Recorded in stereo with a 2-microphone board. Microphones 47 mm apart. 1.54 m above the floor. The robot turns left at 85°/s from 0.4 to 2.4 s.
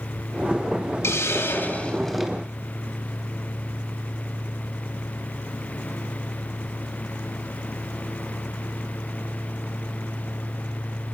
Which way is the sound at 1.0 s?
95° left.